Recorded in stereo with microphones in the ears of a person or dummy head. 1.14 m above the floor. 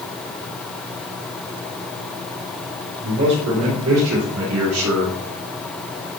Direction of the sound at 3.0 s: 70° right (ahead or behind).